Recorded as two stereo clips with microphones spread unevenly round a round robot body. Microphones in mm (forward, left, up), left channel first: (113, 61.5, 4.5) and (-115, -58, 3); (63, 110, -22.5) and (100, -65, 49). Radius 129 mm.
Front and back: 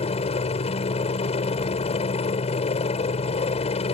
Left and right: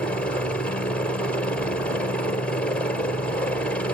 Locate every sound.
0.0 s a helicopter: 70° left